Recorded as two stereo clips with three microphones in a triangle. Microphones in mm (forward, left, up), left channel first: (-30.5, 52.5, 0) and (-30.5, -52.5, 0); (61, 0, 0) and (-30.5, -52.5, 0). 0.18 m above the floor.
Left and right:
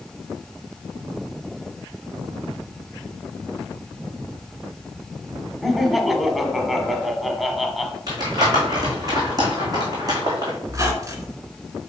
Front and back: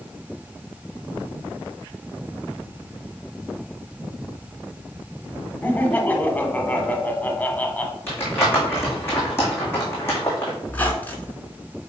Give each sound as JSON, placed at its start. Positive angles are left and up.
{"t": 5.6, "sound": "laughter", "azimuth_deg": -5, "distance_m": 1.0}
{"t": 8.1, "sound": "crumpling", "azimuth_deg": -40, "distance_m": 3.0}
{"t": 10.7, "sound": "a squeak", "azimuth_deg": -40, "distance_m": 1.5}